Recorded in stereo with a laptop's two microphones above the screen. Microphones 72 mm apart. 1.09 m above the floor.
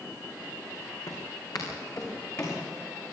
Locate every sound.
1.1 s footsteps: 60° left (ahead or behind), 3.5 m; by 2.6 s 40° left (ahead or behind), 4.5 m